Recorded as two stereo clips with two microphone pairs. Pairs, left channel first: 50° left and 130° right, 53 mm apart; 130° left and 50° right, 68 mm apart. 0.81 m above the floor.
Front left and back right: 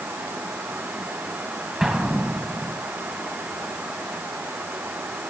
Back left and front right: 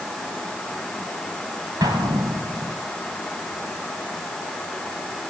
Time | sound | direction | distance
1.8 | an explosion | 45° right | 3 m